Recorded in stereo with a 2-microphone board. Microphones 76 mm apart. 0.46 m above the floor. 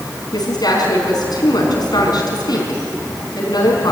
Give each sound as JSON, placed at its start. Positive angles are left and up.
{"t": 0.3, "sound": "a woman speaking", "side_deg": 65, "distance_m": 5.0}